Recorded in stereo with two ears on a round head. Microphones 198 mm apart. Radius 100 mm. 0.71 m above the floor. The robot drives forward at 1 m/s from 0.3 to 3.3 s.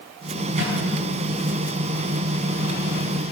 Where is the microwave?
30° right (ahead or behind), 5.5 m; by 0.8 s 35° right (ahead or behind), 5.5 m.